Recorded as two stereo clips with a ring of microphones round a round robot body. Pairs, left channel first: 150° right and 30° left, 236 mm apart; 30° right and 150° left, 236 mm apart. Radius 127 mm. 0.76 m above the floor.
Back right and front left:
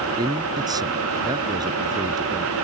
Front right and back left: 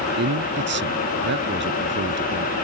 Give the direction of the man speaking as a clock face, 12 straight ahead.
9 o'clock.